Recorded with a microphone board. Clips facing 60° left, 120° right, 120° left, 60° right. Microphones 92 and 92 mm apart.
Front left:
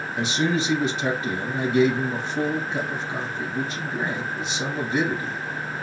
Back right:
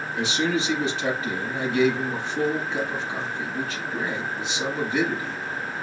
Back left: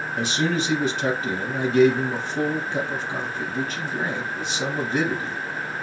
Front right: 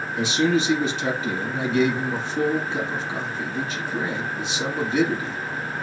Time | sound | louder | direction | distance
0.2 | a man speaking | front left 1 dB, front right 4 dB | 95° left | 2 m